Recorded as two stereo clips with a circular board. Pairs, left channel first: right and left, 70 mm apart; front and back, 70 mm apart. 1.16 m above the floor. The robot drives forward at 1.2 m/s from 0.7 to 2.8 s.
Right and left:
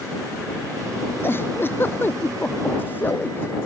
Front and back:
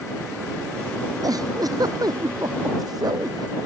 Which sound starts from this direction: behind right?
A giggle, at 1.2 s.